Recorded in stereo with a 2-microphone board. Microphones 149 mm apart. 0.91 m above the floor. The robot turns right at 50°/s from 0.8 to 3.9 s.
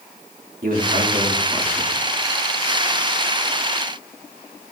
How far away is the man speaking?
About 1.9 m.